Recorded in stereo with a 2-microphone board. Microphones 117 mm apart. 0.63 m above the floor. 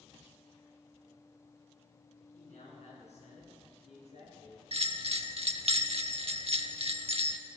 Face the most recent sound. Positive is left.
turn(degrees=-60)  # may be behind; listen again after turning